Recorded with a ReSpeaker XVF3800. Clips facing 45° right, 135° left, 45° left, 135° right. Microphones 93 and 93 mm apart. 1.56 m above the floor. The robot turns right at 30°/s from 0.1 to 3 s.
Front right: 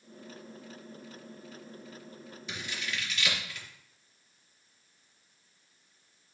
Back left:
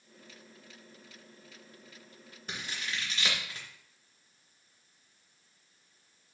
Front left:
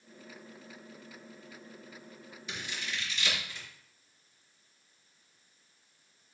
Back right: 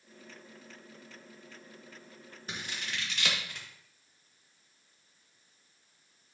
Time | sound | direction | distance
2.5 | scissors | 175° left | 2.5 m